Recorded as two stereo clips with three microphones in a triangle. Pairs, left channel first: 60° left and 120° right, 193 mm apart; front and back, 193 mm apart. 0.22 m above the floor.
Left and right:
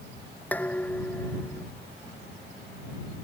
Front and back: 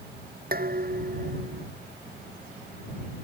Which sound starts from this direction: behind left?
Dishes clattering, at 0.5 s.